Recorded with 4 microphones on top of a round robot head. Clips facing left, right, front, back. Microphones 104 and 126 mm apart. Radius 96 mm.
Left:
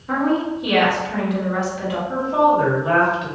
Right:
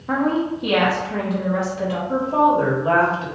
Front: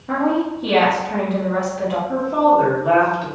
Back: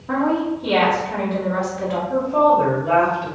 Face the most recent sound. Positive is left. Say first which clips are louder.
# left 1 dB, even
turn(degrees=-35)